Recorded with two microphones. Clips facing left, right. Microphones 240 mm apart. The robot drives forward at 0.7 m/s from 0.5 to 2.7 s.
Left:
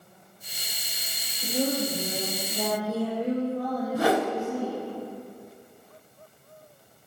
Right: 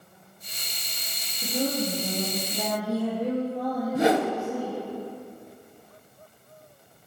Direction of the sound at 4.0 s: 25° right (ahead or behind).